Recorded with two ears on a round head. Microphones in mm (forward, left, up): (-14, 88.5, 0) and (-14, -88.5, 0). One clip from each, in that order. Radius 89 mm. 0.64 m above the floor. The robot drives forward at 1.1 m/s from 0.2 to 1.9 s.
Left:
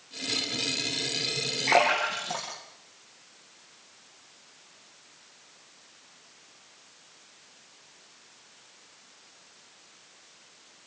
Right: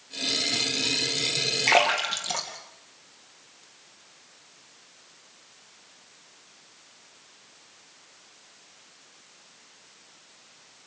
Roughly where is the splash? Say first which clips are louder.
Right 1 dB; right.